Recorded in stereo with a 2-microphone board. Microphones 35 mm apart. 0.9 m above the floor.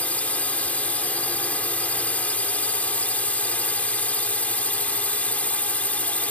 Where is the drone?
50° left (ahead or behind).